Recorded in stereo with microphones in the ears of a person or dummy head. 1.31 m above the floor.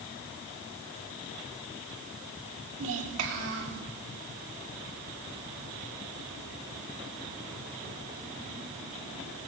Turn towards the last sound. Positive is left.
turn(degrees=-75)  # may be behind; listen again after turning